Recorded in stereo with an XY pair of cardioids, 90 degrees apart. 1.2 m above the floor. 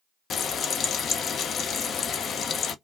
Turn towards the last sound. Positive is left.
turn(degrees=60)